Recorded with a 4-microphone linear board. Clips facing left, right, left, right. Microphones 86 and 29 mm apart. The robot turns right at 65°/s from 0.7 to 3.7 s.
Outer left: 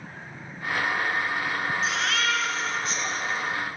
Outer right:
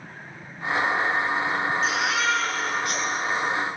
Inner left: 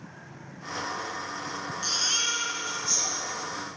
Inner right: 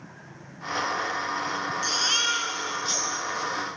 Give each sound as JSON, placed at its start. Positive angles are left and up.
{"t": 1.8, "sound": "a baby crying", "azimuth_deg": 180, "distance_m": 1.9}